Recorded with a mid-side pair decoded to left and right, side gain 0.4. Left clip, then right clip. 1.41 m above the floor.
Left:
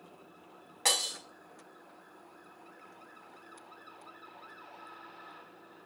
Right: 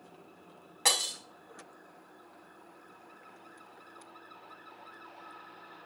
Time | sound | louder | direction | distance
0.8 | breaking glass | right 1 dB | 10° right | 4 m